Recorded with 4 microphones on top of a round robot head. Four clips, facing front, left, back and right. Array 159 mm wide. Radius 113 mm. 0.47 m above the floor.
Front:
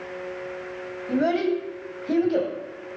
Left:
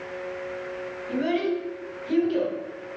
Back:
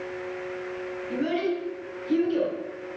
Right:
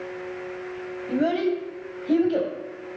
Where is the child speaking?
40° right, 2.5 m.